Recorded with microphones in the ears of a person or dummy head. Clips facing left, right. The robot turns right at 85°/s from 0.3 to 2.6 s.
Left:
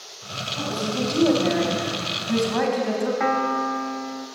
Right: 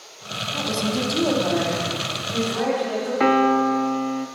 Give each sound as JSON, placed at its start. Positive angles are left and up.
{"t": 0.5, "sound": "a woman speaking", "azimuth_deg": -55, "distance_m": 6.5}
{"t": 3.2, "sound": "a piano", "side_deg": -45, "distance_m": 1.1}